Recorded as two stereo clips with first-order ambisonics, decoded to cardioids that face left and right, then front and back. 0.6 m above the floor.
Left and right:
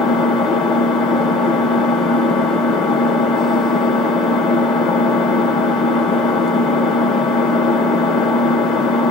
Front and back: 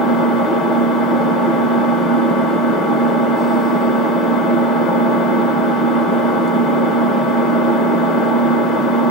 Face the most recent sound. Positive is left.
turn(degrees=45)